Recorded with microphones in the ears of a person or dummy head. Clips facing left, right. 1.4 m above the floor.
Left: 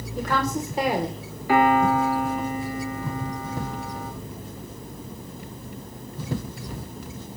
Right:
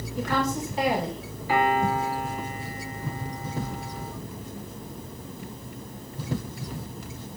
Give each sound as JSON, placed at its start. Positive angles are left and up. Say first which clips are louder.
{"t": 0.2, "sound": "a woman speaking", "louder": "left 1 dB", "side_deg": 45, "distance_m": 4.5}
{"t": 1.5, "sound": "a piano", "louder": "left 5 dB", "side_deg": 55, "distance_m": 4.5}